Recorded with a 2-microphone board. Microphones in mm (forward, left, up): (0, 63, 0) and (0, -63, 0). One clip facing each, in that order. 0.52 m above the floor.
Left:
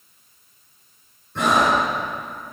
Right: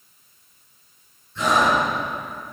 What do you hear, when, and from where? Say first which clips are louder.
1.4 s breathing: left 1 dB; 65° left (ahead or behind), 3.5 m